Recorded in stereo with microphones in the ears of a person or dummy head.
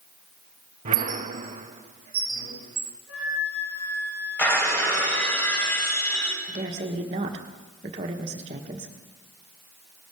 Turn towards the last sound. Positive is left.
turn(degrees=-35)  # may be behind; listen again after turning